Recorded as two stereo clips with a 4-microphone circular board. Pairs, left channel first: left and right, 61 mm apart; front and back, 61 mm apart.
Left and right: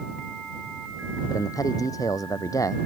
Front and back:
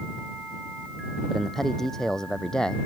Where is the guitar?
I don't hear a guitar.